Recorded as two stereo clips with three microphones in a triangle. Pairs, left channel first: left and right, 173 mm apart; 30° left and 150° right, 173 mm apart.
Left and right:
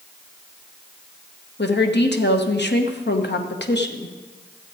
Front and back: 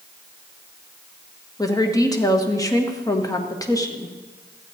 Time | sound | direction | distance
1.6 | a woman speaking | 100° left | 1.2 m